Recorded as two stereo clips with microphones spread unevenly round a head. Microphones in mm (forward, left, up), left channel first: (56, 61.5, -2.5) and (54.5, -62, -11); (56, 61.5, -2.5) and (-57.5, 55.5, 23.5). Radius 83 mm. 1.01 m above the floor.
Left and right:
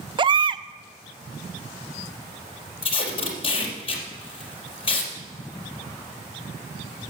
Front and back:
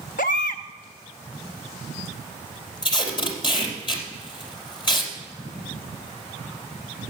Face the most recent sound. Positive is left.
turn(degrees=50)